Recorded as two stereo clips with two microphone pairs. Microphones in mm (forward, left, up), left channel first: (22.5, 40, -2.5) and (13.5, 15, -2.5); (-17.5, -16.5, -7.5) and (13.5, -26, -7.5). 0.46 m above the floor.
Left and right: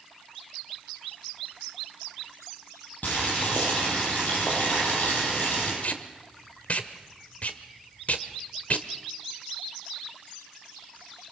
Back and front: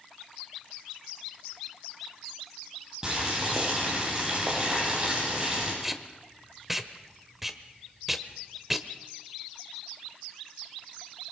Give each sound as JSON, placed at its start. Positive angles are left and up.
{"t": 3.0, "sound": "boiling", "azimuth_deg": 55, "distance_m": 9.5}
{"t": 5.8, "sound": "tape being pulled", "azimuth_deg": 65, "distance_m": 1.2}